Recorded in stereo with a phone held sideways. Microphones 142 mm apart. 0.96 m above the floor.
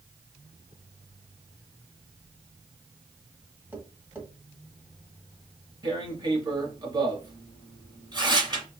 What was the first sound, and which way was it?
Tapping, 15° right (ahead or behind).